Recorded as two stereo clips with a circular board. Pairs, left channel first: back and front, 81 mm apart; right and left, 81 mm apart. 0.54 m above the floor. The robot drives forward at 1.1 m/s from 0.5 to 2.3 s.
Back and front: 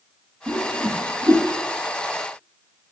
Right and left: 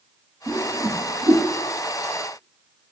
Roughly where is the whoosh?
Ahead left.